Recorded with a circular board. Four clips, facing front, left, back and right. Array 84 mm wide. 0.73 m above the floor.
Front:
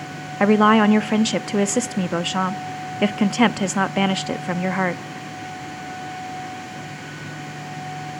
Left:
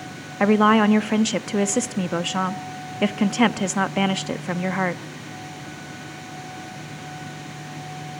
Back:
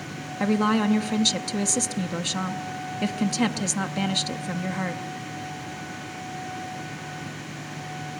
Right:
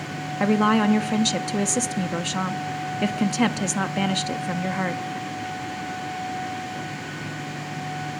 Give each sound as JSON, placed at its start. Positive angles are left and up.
{"t": 0.4, "sound": "a woman speaking", "azimuth_deg": 25, "distance_m": 0.7}